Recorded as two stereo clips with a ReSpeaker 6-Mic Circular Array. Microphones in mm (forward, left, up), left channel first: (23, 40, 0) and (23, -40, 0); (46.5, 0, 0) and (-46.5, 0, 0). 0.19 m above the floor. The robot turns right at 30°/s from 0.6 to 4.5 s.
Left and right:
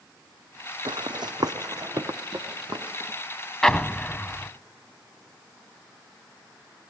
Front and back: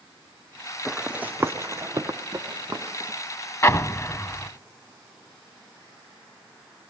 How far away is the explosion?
About 0.5 m.